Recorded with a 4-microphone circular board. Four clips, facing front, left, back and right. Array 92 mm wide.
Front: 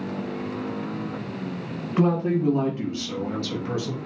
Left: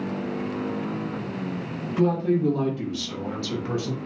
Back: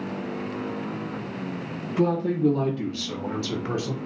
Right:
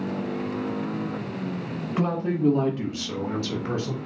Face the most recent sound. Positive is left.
turn(degrees=180)